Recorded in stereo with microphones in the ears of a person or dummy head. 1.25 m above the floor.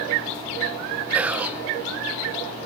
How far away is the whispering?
About 1.0 m.